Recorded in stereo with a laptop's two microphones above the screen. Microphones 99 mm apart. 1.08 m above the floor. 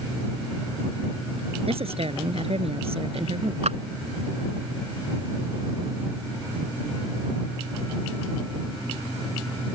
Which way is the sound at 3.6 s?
85° right.